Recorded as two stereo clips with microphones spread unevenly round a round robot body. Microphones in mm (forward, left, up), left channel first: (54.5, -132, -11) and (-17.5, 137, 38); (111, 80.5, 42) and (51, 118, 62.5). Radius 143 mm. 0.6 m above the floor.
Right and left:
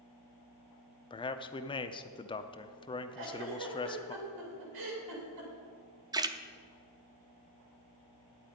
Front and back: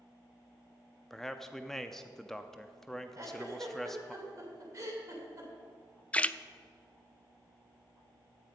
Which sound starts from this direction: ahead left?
A splash, at 6.1 s.